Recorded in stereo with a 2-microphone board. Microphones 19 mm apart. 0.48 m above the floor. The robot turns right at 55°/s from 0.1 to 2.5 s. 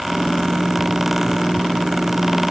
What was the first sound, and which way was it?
Only background noise.